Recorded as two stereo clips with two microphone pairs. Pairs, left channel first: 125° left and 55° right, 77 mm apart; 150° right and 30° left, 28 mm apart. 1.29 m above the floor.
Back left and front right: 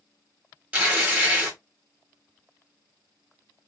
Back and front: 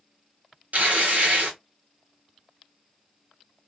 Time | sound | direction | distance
0.7 | tearing paper | 15° left | 1.4 m